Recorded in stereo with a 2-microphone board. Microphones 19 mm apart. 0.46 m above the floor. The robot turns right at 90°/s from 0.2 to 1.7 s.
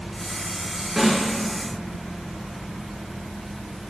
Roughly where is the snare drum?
Centre.